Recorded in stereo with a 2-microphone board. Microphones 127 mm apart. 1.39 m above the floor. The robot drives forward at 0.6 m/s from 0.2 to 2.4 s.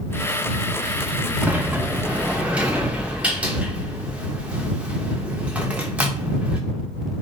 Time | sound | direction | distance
1.4 | a sliding door | 15° right (ahead or behind) | 1.8 m